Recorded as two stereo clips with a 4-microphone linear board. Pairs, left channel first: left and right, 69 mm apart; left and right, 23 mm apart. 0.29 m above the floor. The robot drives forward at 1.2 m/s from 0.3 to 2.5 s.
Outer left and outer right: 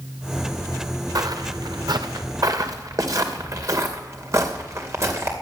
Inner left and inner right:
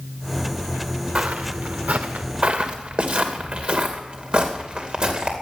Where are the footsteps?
60° right (ahead or behind), 2 m; by 5.3 s 35° right (ahead or behind), 3.5 m.